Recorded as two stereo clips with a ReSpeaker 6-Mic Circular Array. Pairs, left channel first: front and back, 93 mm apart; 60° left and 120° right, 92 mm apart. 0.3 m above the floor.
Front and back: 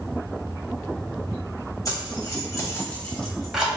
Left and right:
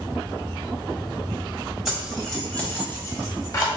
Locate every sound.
1.9 s keys jangling: 35° right, 1.4 m; by 3.7 s 100° left, 1.3 m